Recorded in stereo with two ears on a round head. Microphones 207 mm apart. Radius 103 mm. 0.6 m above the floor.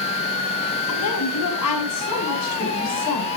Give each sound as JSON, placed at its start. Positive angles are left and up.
{"t": 0.9, "sound": "a woman speaking", "side_deg": 75, "distance_m": 5.0}